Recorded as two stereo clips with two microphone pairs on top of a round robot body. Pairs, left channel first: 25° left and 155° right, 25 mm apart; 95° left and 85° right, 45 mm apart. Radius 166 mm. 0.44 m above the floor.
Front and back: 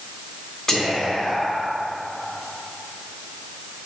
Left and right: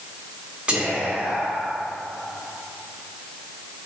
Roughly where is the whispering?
Ahead.